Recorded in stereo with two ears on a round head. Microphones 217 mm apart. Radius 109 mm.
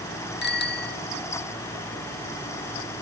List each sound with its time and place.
0.4 s a bicycle bell: 45° left (ahead or behind)